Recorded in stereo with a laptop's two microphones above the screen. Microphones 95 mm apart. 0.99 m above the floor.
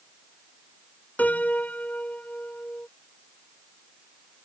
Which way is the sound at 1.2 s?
15° left (ahead or behind).